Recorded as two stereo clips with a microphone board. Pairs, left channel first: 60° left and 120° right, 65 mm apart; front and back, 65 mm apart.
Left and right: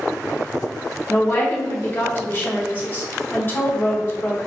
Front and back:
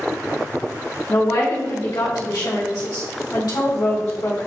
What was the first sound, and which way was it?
A woman speaking, 5° left.